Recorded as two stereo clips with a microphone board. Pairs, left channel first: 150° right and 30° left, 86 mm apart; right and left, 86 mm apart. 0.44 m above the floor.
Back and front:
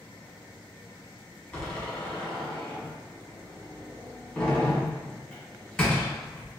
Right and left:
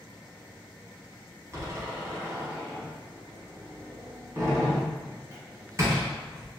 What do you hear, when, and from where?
1.5 s a door slam: 130° left, 1.4 m